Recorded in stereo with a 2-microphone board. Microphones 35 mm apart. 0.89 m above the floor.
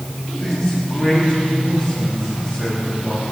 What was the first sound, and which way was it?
A man speaking, centre (ahead or behind).